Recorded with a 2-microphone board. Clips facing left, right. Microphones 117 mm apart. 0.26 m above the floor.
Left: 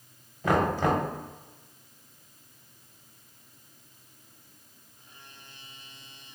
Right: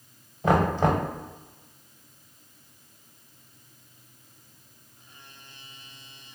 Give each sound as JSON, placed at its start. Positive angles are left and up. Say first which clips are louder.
{"t": 0.4, "sound": "knocking", "louder": "right 2 dB", "side_deg": -25, "distance_m": 0.7}